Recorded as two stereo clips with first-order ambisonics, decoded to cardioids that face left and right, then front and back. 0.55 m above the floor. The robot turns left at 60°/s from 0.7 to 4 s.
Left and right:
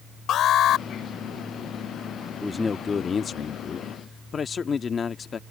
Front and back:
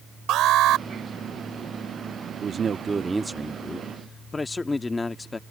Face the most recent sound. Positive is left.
turn(degrees=65)